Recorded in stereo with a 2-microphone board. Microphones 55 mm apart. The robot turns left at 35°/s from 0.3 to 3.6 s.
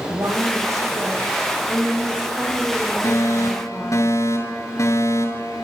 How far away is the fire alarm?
About 6 m.